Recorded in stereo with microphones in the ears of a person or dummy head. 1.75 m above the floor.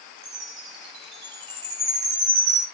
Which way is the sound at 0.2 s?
25° right (ahead or behind).